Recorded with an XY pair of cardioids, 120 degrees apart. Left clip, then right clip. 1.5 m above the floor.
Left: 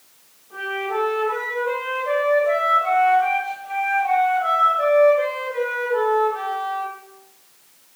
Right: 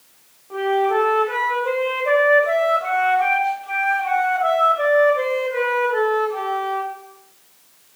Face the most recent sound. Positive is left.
turn(degrees=-55)